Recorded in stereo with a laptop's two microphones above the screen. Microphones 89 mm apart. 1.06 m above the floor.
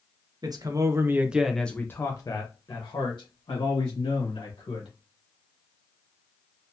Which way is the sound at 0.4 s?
50° right (ahead or behind).